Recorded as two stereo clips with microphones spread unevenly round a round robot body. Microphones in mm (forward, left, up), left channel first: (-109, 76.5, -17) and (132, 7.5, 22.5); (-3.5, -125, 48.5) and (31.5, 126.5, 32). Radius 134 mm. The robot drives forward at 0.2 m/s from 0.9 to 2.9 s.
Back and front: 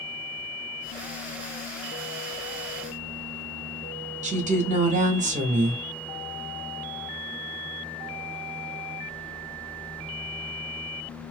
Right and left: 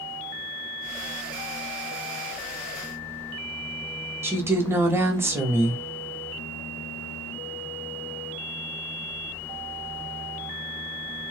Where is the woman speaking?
25° left, 0.7 m.